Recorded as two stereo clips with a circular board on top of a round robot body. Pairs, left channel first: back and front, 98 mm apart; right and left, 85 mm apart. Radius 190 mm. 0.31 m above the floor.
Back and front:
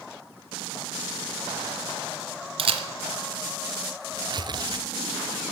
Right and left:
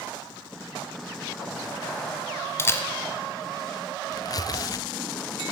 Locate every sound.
2.6 s a camera shutter: 25° right, 0.9 m
4.1 s tearing paper: 45° right, 0.6 m